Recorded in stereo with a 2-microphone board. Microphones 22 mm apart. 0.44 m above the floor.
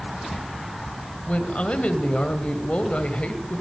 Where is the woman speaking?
60° left (ahead or behind), 2.5 m.